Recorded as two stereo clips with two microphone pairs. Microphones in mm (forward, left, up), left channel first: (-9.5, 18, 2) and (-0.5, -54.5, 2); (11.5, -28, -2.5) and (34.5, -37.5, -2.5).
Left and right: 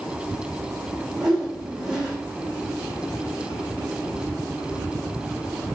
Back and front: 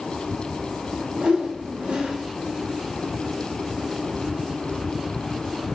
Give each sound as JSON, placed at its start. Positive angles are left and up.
{"t": 1.2, "sound": "a whoosh", "azimuth_deg": -5, "distance_m": 6.5}